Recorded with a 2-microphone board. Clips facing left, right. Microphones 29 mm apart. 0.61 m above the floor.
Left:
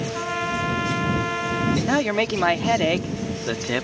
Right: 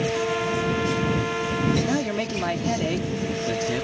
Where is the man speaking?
40° left (ahead or behind).